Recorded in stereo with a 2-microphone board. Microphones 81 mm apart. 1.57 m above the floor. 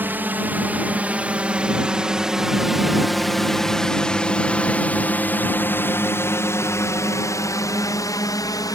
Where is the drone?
25° right (ahead or behind); by 8.8 s 55° left (ahead or behind).